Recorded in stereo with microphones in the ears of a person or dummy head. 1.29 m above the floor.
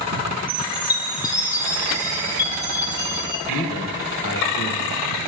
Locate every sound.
0.5 s a chime: 20° left (ahead or behind), 1.8 m
3.5 s a man speaking: 55° left (ahead or behind), 1.5 m